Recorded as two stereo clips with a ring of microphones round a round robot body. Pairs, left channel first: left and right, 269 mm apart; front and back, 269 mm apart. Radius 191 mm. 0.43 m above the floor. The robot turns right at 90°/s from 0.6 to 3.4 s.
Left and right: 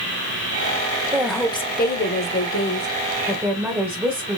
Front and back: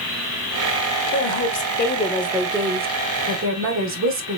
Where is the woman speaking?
20° right, 1.2 m; by 4.4 s 170° right, 1.2 m.